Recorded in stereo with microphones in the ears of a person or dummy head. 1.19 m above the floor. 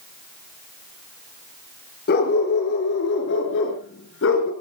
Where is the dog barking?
60° left (ahead or behind), 5 m; by 4.5 s 80° left, 4.5 m.